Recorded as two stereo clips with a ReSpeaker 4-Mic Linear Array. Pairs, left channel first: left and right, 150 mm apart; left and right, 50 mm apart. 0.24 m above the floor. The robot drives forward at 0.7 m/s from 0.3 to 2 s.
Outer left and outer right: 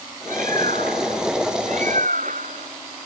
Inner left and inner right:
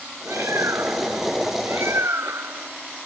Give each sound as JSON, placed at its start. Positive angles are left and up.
{"t": 0.3, "sound": "a bird", "side_deg": -70}